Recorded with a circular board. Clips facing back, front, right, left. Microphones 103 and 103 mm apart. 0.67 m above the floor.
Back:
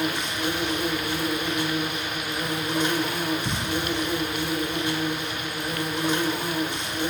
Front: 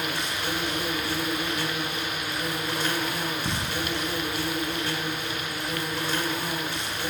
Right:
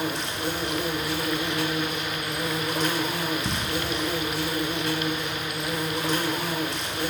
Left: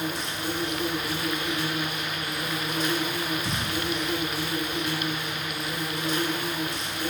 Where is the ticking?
80° right, 1.4 m.